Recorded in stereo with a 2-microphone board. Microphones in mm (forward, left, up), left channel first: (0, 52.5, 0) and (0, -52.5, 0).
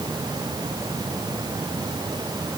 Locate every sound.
Only background noise.